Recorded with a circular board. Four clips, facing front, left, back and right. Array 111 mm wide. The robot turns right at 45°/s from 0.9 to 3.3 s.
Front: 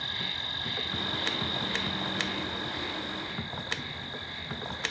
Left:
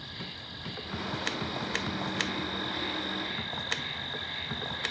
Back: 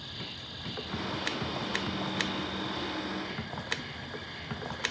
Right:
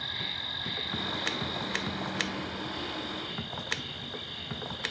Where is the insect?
35° right; by 4.9 s 75° left.